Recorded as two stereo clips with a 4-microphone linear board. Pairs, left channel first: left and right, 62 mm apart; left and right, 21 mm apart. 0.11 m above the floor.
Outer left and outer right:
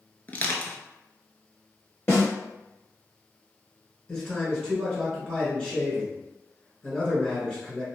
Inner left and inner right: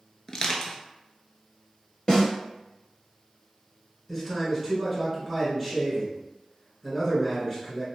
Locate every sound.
0.3 s crushing: 30° left (ahead or behind), 0.5 m
2.1 s a snare drum: 40° left (ahead or behind), 1.8 m
4.1 s a man speaking: 15° left (ahead or behind), 1.3 m